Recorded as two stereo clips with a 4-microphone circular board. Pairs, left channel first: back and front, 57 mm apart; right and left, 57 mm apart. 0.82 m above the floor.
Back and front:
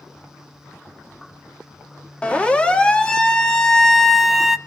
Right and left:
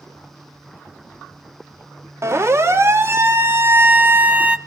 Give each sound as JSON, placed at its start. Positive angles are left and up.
{"t": 2.2, "sound": "a siren", "azimuth_deg": 115, "distance_m": 2.0}